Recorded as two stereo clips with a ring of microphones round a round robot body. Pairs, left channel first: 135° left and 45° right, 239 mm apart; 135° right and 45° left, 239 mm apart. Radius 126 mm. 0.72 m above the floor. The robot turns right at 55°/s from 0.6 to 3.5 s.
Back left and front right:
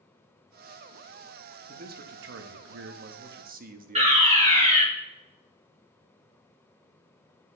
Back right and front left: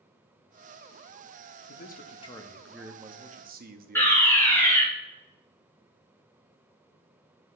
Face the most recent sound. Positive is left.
turn(degrees=-65)